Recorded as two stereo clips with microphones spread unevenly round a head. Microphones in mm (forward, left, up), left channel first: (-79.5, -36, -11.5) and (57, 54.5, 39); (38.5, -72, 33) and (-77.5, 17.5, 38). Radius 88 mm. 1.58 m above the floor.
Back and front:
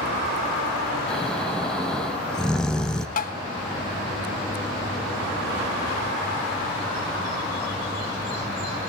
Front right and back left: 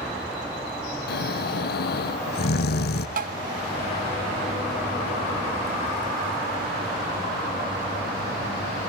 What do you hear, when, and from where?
1.1 s snoring: 60° right, 1.3 m
3.2 s tapping: 165° left, 1.3 m